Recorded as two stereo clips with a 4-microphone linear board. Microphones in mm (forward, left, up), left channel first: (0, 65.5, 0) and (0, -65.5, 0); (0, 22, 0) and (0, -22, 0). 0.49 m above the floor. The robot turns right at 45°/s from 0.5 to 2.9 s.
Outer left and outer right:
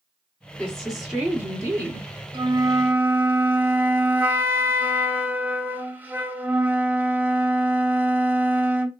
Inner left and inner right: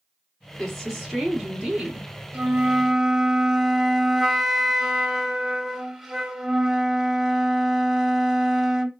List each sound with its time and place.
0.6 s a woman speaking: 165° left, 1.5 m; by 2.1 s 125° right, 1.5 m
2.3 s a flute: 40° right (ahead or behind), 0.5 m; by 8.9 s 15° right (ahead or behind), 0.5 m